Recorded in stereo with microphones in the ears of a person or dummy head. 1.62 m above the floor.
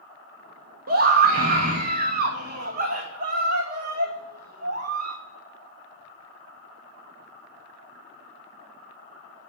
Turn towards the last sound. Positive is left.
turn(degrees=-55)  # may be behind; listen again after turning